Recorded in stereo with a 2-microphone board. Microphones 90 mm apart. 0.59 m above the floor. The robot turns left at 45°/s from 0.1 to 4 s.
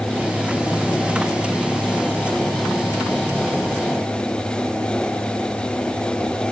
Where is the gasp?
No gasp in this recording.